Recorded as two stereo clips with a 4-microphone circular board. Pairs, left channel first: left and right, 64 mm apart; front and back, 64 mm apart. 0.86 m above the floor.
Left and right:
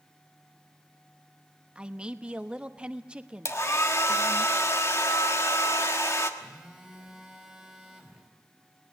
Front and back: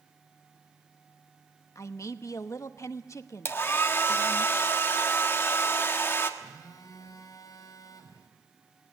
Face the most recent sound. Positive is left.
turn(degrees=-5)